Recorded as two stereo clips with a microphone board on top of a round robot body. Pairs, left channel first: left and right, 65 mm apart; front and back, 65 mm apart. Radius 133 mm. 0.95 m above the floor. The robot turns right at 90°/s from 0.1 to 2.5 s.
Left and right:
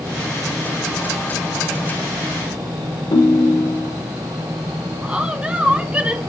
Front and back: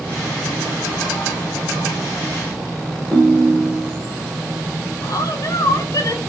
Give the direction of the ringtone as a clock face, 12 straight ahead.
9 o'clock.